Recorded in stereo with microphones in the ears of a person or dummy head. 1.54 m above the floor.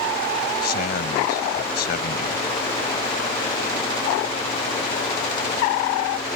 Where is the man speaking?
45° left (ahead or behind).